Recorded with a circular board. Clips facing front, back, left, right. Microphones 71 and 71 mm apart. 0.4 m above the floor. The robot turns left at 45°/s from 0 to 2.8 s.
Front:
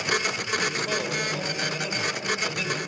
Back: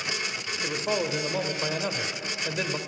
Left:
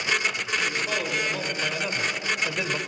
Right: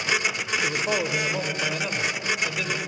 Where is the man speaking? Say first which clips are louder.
Back 5 dB, right 5 dB; 125° right, 1.2 m; by 2.8 s 135° left, 1.2 m.